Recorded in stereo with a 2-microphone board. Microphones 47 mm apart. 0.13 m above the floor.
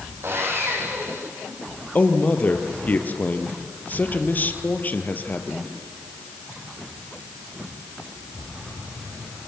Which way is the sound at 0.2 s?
55° right (ahead or behind).